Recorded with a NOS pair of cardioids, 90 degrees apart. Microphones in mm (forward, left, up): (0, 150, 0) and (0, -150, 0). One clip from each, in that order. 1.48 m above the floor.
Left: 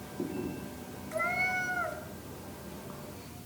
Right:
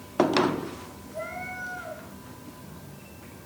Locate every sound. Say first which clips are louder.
1.1 s a cat meowing: left 5 dB; 65° left, 3 m